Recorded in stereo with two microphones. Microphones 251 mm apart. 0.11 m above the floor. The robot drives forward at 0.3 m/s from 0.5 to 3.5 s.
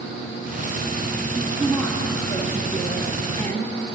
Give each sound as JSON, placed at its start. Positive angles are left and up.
{"t": 1.4, "sound": "a woman speaking", "side_deg": 5, "distance_m": 2.0}